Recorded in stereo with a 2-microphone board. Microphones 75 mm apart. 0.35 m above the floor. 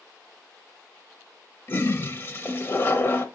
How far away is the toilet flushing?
About 0.8 m.